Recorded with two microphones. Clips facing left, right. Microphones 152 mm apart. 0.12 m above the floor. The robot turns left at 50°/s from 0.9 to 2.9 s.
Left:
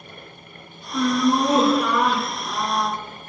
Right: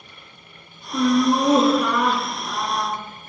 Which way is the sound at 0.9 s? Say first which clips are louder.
Right 2 dB; 130° right.